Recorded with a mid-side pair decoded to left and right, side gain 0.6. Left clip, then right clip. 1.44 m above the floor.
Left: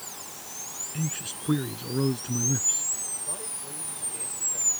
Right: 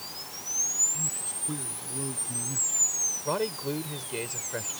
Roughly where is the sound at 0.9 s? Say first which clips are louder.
Right 1 dB; ahead left.